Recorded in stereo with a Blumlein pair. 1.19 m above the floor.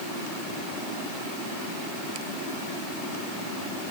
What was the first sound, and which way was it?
Only background noise.